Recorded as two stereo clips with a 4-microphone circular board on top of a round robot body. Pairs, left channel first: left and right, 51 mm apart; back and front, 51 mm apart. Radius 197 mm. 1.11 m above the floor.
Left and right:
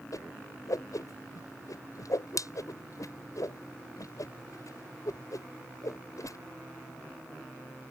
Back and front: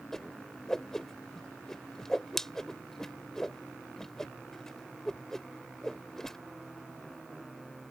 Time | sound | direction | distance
0.1 | a whoosh | 100° left | ?